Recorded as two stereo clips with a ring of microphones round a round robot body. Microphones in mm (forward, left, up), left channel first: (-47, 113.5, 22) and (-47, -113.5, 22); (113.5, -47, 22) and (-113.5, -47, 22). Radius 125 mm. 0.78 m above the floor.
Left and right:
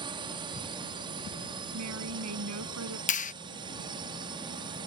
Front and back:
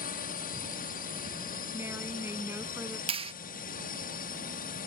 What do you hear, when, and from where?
0.0 s a drone: 25° right
1.7 s a woman speaking: 100° right
3.1 s a clap: 125° left